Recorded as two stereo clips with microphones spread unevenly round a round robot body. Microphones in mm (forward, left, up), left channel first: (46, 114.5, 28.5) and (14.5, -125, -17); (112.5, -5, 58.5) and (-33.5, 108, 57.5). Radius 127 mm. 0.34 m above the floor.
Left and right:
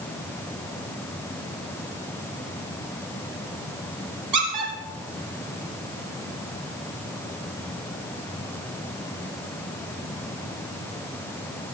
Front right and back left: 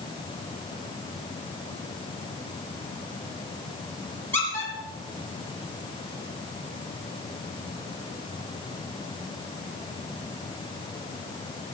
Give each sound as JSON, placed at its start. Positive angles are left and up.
{"t": 4.3, "sound": "a squeak", "azimuth_deg": -115, "distance_m": 6.0}